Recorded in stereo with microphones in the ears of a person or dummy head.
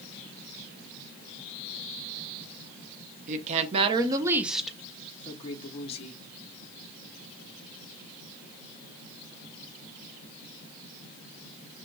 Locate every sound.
3.3 s a woman speaking: 45° right (ahead or behind), 1.0 m; by 6.2 s 40° left (ahead or behind), 1.2 m